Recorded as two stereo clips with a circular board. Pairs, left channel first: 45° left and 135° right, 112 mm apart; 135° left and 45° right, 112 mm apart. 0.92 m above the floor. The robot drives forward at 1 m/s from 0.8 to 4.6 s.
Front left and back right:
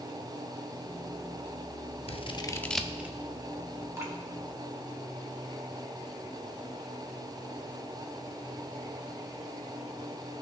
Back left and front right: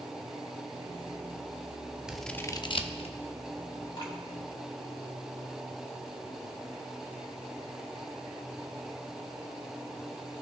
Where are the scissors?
40° left, 0.6 m; by 3.2 s 155° left, 0.8 m.